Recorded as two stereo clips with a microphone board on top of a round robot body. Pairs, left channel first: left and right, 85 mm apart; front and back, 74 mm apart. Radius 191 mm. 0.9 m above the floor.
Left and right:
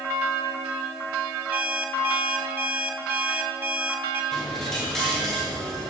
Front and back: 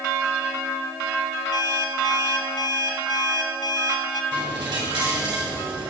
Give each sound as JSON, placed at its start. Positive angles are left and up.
{"t": 1.5, "sound": "an alarm clock", "azimuth_deg": -15, "distance_m": 4.0}
{"t": 4.3, "sound": "a dropped coin", "azimuth_deg": 175, "distance_m": 8.0}